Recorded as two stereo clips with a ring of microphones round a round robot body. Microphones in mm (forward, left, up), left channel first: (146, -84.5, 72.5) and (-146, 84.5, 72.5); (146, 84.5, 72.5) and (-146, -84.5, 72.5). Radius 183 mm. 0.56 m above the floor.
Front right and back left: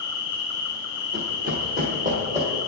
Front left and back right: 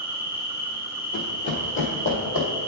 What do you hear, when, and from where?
0.0 s an insect: 80° right, 1.8 m
1.1 s running footsteps: 90° left, 0.9 m; by 2.5 s 80° left, 1.6 m